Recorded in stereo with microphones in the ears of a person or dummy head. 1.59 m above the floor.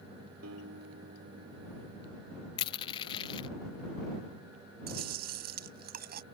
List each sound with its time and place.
0.4 s a guitar: 85° right
2.6 s crushing: 30° left (ahead or behind)
4.9 s chewing: 55° right (ahead or behind)